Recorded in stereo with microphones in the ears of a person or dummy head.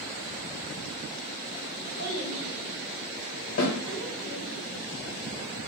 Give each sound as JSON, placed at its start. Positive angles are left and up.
{"t": 2.0, "sound": "a child speaking", "side_deg": -50, "distance_m": 1.6}
{"t": 3.6, "sound": "a snare drum", "side_deg": 50, "distance_m": 1.2}